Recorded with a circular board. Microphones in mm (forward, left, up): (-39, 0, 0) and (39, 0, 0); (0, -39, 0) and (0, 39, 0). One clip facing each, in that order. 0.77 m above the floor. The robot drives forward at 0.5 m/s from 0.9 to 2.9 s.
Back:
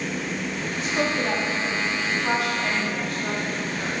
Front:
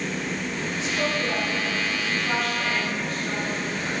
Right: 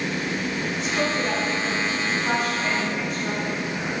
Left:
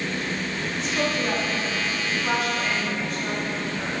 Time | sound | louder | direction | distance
0.8 | a woman speaking | back 2 dB, even | 175° right | 1.3 m